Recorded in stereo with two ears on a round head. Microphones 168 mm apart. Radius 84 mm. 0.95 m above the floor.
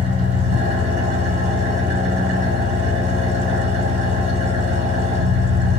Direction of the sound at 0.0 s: 45° right (ahead or behind).